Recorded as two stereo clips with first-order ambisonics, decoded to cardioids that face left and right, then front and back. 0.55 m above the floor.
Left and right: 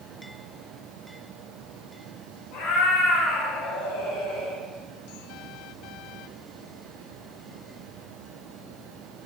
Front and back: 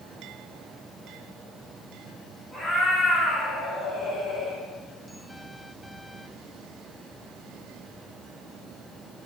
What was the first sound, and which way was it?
A cat meowing, 95° left.